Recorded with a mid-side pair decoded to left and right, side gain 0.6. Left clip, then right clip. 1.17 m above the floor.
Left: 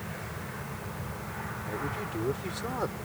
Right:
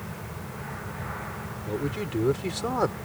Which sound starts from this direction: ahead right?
A man speaking, at 1.7 s.